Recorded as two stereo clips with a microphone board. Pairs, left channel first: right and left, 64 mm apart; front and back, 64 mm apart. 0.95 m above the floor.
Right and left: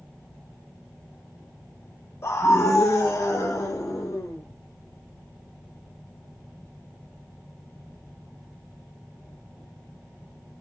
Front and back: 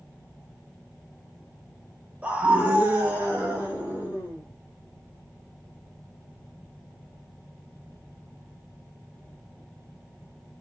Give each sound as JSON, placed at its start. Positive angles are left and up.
{"t": 2.2, "sound": "a scream", "azimuth_deg": -115, "distance_m": 0.6}